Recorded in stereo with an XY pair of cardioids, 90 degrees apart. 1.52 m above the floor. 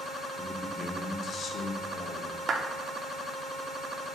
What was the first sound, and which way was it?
A man speaking, 25° left.